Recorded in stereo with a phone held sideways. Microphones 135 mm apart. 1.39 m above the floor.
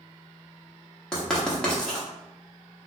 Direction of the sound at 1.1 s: 5° left (ahead or behind).